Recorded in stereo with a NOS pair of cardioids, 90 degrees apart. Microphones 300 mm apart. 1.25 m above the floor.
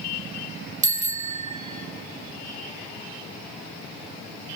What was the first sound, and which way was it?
A bicycle bell, 25° right.